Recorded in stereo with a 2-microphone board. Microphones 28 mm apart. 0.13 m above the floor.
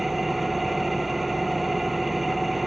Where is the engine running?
Centre (ahead or behind), 0.8 m.